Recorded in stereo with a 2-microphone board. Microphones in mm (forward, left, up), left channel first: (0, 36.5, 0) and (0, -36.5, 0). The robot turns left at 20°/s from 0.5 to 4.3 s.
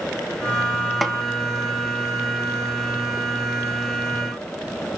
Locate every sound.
1.0 s a snare drum: centre (ahead or behind), 1.0 m